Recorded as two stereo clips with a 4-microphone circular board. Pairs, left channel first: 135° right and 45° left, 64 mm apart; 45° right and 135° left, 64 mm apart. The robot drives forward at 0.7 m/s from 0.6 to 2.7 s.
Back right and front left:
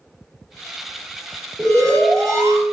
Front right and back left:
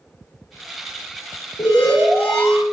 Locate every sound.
1.6 s an alarm: 10° left, 1.8 m; by 2.6 s 20° left, 1.1 m